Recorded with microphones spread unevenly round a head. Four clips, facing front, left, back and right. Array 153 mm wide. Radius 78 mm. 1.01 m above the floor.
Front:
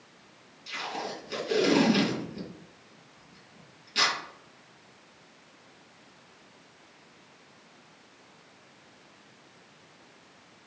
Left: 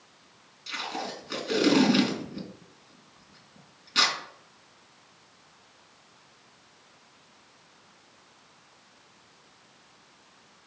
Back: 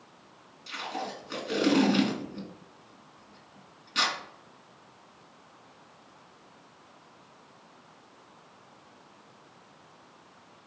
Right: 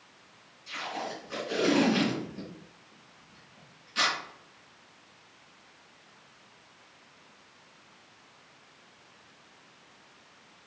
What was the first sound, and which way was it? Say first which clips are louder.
Tape being pulled: left 1 dB, even; 90° left.